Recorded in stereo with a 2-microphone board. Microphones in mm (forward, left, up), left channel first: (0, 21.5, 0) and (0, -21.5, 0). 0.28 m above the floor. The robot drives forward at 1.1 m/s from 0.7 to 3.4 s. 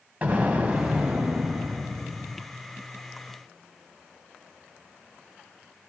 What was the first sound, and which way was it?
An explosion, 35° right (ahead or behind).